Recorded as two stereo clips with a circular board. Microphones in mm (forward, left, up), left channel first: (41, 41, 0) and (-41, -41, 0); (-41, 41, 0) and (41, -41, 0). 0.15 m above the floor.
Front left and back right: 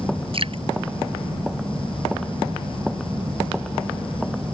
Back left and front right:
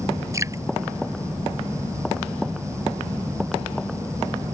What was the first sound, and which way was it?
Dripping, 105° right.